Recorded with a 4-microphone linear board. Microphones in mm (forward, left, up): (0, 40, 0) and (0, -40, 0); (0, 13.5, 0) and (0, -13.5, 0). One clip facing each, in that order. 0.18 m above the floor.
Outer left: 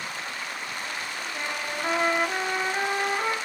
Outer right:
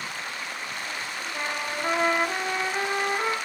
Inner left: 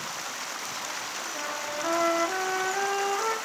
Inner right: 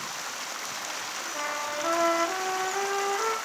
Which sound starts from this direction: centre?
A trumpet, at 1.3 s.